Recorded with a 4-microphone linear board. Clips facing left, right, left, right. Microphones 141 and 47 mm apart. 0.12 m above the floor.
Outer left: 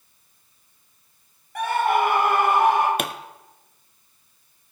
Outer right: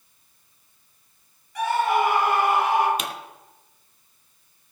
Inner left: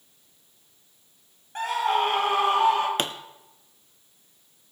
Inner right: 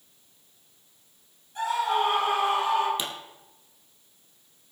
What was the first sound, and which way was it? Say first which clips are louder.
A scream: outer left 1 dB, inner left 1 dB; 55° left (ahead or behind).